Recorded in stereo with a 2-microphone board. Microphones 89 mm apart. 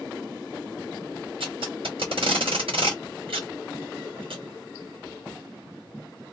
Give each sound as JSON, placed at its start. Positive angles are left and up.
{"t": 1.4, "sound": "tape being pulled", "side_deg": -80, "distance_m": 1.9}